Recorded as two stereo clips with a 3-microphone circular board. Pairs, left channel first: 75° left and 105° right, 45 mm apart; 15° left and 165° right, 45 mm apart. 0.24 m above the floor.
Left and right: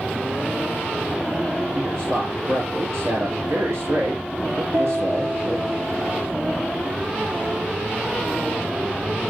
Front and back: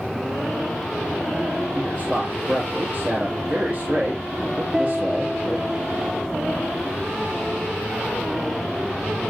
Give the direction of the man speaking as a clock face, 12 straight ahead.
4 o'clock.